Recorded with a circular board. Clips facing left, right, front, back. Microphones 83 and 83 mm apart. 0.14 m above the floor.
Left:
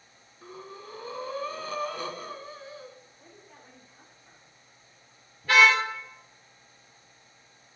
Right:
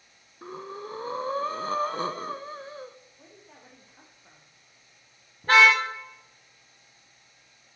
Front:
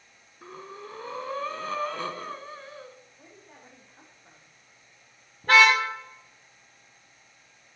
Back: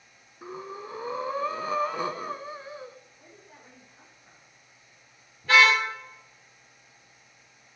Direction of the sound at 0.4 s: 110° right.